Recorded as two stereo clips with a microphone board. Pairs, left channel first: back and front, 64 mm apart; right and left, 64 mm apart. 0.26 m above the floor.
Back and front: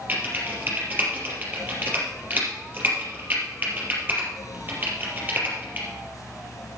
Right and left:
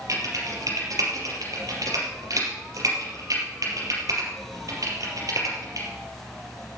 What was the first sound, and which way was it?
Typing on a keyboard, 60° left.